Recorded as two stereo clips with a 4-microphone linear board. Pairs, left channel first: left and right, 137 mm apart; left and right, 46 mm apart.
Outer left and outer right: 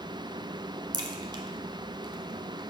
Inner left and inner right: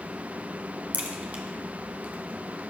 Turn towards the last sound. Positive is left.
turn(degrees=-35)  # may be behind; listen again after turning